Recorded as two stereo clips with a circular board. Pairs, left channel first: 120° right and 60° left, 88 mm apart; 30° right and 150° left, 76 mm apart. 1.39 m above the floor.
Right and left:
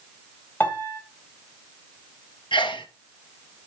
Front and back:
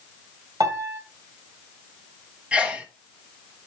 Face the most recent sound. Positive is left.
turn(degrees=-135)